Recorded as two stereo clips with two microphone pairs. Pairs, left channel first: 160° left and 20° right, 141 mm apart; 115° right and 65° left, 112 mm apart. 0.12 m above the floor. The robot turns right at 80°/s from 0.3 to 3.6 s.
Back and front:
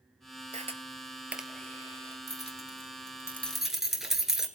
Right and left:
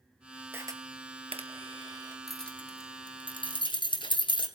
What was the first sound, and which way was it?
A camera shutter, 5° right.